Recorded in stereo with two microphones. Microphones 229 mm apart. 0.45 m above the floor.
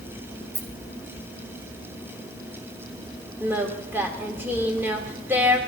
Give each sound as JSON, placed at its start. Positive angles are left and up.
{"t": 0.5, "sound": "a rattle", "side_deg": -35, "distance_m": 1.8}
{"t": 3.4, "sound": "singing", "side_deg": -10, "distance_m": 1.4}